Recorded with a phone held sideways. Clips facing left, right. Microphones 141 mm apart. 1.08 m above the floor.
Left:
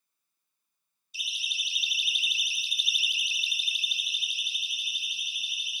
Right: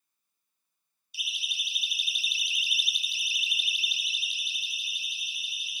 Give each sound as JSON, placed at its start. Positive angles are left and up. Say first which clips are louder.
{"t": 1.1, "sound": "a siren", "louder": "even", "side_deg": -65, "distance_m": 3.0}